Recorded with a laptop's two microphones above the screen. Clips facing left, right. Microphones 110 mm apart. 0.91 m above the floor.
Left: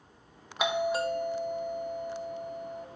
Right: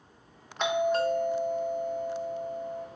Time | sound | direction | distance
0.6 | a doorbell | 10° left (ahead or behind) | 1.1 m